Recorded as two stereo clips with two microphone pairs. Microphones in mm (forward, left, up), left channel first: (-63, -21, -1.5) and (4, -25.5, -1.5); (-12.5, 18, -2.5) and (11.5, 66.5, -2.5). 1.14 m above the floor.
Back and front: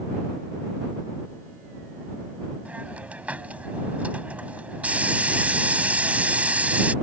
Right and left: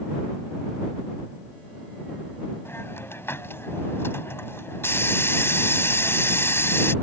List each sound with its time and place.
2.6 s a hiss: 75° right